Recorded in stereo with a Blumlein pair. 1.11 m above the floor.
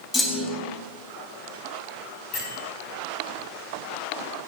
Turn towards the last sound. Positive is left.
turn(degrees=45)